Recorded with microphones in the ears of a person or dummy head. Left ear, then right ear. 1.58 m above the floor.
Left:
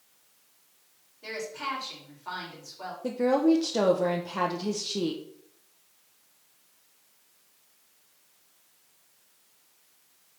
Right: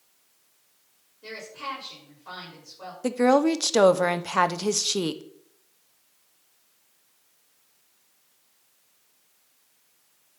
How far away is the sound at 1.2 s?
About 4 m.